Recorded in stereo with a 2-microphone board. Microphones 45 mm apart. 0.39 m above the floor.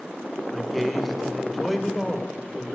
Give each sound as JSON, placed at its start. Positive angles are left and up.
{"t": 0.5, "sound": "a man speaking", "side_deg": 0, "distance_m": 1.0}